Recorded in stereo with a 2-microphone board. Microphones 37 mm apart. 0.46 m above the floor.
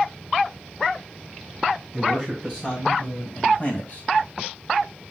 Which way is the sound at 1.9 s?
15° left (ahead or behind).